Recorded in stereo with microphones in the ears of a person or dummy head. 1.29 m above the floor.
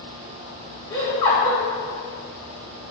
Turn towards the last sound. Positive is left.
turn(degrees=30)  # may be behind; listen again after turning